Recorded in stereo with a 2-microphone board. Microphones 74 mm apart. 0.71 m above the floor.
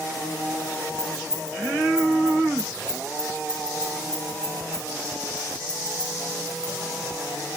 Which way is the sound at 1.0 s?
10° right (ahead or behind).